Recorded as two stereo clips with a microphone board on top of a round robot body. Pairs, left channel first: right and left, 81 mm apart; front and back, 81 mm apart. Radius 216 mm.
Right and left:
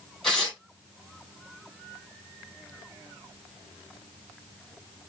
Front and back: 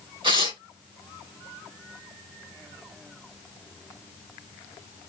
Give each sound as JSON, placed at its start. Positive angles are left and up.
{"t": 0.2, "sound": "tearing paper", "azimuth_deg": -175, "distance_m": 4.5}